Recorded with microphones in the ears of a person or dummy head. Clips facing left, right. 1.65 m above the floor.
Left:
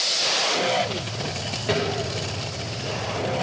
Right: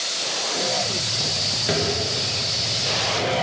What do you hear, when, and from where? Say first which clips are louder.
1.7 s a drawer: even; 5° right (ahead or behind), 0.8 m